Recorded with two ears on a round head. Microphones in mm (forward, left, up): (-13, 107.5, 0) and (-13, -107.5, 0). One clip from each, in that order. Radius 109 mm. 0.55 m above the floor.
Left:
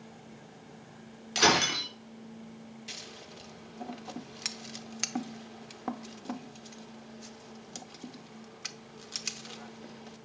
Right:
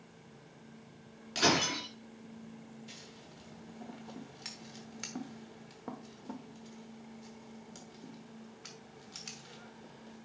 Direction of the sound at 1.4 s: 25° left (ahead or behind).